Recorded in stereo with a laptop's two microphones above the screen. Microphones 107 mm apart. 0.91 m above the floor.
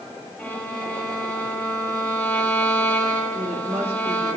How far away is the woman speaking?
About 1.9 m.